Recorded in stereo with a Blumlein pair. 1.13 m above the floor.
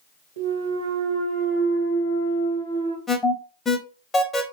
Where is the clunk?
70° right, 1.0 m.